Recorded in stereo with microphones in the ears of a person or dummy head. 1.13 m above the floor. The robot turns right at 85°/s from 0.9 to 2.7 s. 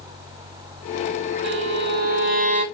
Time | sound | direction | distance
1.4 | a violin | 135° right | 3.5 m